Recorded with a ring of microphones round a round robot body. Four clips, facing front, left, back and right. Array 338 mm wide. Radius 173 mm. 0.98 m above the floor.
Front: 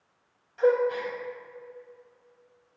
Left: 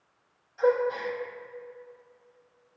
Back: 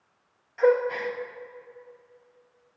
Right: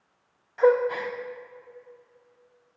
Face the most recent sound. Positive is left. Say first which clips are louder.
# right 4 dB, back 1 dB
turn(degrees=-105)